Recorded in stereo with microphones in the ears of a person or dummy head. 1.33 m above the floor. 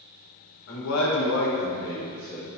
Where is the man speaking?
50° left (ahead or behind), 1.1 m; by 2.5 s 10° left (ahead or behind), 2.0 m.